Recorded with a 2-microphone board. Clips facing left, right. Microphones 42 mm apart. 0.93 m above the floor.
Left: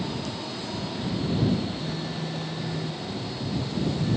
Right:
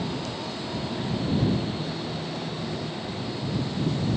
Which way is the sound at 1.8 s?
45° left (ahead or behind).